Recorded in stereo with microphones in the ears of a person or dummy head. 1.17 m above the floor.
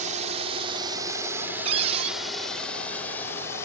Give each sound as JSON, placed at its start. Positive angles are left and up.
{"t": 0.0, "sound": "a drone", "side_deg": -45}
{"t": 1.6, "sound": "a cupboard door", "side_deg": -35}